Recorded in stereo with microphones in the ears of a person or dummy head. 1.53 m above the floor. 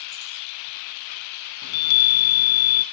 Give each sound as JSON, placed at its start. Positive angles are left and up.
{"t": 1.6, "sound": "a chime", "side_deg": 80, "distance_m": 0.7}